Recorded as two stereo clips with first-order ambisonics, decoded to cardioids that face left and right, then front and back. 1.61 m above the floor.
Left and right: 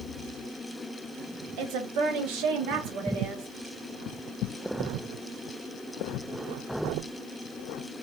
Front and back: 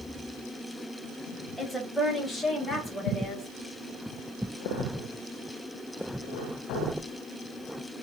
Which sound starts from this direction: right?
A woman speaking, at 1.6 s.